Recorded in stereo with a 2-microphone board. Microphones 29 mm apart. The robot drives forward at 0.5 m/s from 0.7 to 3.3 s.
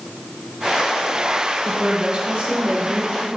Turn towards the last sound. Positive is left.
turn(degrees=-35)  # may be behind; listen again after turning